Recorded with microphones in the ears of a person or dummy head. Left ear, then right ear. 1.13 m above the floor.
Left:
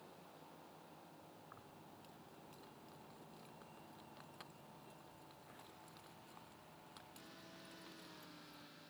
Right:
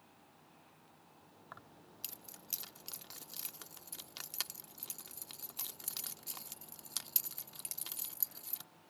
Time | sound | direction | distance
1.5 | keys jangling | 80° right | ?